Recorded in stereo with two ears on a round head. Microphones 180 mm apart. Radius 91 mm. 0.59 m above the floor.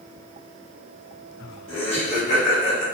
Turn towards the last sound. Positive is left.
turn(degrees=45)  # may be behind; listen again after turning